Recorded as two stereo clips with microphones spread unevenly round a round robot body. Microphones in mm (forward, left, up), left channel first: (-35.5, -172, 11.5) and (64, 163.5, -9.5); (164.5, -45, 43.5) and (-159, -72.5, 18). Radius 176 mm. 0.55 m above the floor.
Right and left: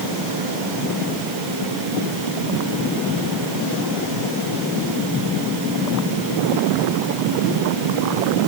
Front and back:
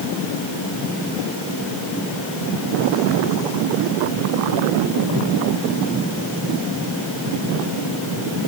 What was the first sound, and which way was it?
Only background noise.